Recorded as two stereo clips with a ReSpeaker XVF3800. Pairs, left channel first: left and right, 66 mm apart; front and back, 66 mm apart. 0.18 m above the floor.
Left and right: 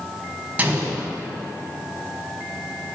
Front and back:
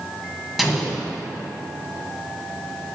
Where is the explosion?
100° right, 1.5 m.